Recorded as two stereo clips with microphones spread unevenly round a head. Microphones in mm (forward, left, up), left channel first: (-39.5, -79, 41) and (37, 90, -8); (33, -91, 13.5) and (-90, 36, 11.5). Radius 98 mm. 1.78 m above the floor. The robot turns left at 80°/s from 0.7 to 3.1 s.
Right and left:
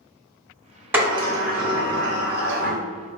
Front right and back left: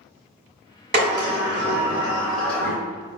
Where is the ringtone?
No ringtone in this recording.